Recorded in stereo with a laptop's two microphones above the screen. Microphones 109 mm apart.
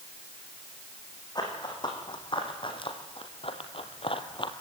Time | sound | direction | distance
1.4 | running footsteps | 40° left (ahead or behind) | 3.5 m